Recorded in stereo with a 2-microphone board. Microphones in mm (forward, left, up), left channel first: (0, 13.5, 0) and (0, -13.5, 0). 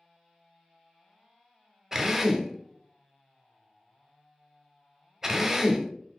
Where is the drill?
20° right (ahead or behind), 0.5 m.